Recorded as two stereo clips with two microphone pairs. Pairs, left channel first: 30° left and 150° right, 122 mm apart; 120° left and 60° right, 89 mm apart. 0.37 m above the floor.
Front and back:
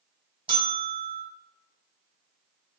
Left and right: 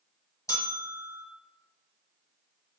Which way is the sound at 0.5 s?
170° left.